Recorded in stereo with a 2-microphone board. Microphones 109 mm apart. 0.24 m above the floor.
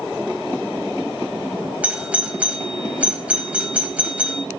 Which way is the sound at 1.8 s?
10° right (ahead or behind).